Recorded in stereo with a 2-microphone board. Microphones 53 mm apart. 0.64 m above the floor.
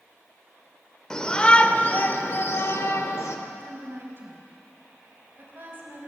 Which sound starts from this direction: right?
A woman speaking, at 3.5 s.